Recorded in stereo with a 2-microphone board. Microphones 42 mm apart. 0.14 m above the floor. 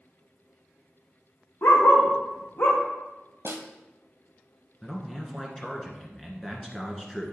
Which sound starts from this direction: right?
A snare drum, at 3.5 s.